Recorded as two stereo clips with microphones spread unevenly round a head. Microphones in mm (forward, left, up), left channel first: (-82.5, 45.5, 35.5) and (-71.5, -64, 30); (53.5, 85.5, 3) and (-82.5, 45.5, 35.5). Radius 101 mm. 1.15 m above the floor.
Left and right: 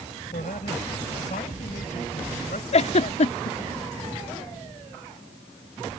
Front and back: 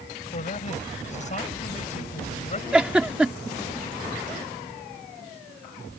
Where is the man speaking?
55° left.